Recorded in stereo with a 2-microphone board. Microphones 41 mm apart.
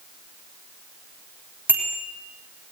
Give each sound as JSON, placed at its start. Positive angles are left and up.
{"t": 1.7, "sound": "a bicycle bell", "side_deg": -60, "distance_m": 3.5}